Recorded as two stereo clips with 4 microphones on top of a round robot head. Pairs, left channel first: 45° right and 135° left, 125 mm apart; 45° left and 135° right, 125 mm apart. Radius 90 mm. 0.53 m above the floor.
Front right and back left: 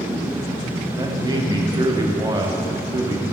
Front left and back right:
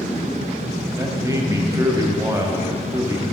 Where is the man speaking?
175° left, 1.1 m.